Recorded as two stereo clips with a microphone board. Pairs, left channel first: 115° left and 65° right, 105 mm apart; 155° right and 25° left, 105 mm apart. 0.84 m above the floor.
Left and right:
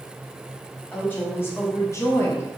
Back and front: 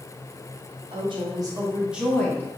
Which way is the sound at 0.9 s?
45° left.